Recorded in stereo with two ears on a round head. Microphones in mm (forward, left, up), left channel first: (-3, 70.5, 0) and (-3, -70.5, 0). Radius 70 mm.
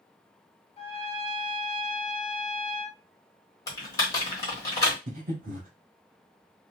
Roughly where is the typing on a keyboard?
Left.